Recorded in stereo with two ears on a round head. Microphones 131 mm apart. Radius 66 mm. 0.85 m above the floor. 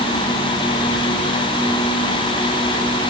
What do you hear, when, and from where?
Only background noise.